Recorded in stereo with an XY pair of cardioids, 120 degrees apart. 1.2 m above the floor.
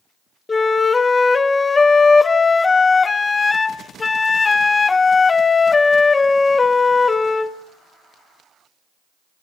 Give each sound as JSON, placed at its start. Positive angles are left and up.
{"t": 0.5, "sound": "a flute", "azimuth_deg": 25, "distance_m": 0.8}